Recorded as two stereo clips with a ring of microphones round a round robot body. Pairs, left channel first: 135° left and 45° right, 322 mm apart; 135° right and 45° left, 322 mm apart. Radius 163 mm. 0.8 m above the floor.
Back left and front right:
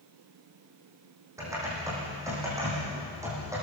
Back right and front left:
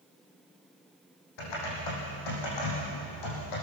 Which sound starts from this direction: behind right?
Typing on a keyboard, at 1.4 s.